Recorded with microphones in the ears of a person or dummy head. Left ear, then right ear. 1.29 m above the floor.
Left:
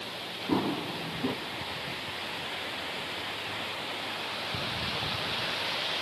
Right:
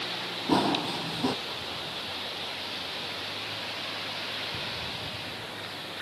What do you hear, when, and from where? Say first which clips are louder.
0.5 s running footsteps: right 5 dB; 30° right (ahead or behind)